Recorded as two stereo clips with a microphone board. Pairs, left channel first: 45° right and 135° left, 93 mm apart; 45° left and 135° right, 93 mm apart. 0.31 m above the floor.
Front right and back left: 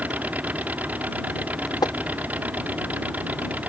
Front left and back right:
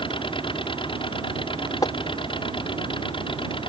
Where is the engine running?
60° left.